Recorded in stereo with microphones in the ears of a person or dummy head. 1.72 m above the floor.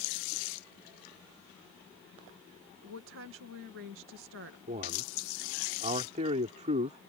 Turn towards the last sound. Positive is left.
turn(degrees=-35)  # may be behind; listen again after turning